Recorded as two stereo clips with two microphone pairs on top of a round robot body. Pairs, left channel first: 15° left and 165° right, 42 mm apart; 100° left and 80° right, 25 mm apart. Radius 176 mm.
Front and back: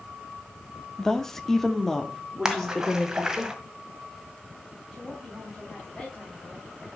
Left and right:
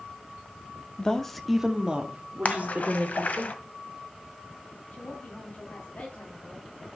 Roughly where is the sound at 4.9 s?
Left.